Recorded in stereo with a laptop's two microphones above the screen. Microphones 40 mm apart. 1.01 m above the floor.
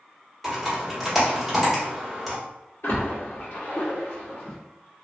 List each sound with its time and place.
0.4 s typing on a keyboard: centre (ahead or behind), 0.9 m
2.8 s a splash: 85° left, 1.5 m